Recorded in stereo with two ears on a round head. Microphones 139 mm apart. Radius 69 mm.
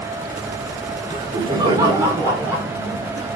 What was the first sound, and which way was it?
Laughter, 35° right (ahead or behind).